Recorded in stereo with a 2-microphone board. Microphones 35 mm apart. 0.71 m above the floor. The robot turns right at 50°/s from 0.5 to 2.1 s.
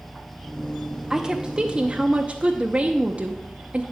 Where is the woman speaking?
150° right, 0.7 m; by 3.8 s 100° right, 0.7 m.